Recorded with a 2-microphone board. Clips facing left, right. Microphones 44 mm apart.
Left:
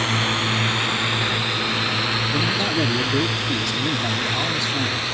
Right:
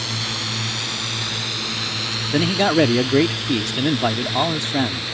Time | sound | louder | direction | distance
0.0 | a drone | left 6 dB | 30° left (ahead or behind) | ?
2.3 | a man speaking | right 9 dB | 40° right (ahead or behind) | ?